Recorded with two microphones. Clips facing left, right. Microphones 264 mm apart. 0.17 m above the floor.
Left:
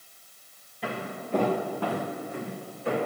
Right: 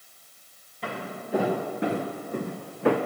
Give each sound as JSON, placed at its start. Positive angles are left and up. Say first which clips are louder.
{"t": 0.8, "sound": "footsteps", "louder": "left 1 dB", "side_deg": 0, "distance_m": 1.8}